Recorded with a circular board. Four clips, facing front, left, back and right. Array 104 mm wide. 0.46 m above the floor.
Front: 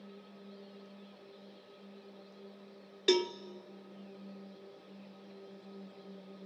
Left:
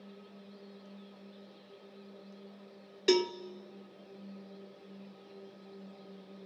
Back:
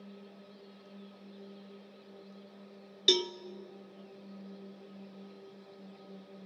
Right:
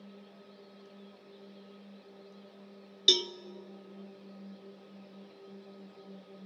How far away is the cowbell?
About 0.5 m.